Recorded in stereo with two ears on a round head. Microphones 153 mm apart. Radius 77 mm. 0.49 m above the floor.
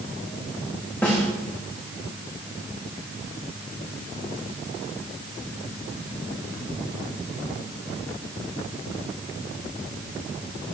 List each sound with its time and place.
1.0 s a snare drum: 10° left (ahead or behind), 7.5 m